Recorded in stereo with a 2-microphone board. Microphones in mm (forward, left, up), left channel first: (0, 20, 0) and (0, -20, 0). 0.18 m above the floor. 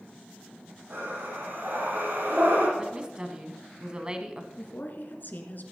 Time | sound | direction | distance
0.9 | breathing | 70° right (ahead or behind) | 7.5 m
2.8 | a woman speaking | 20° right (ahead or behind) | 1.2 m
4.6 | a woman speaking | 50° left (ahead or behind) | 1.8 m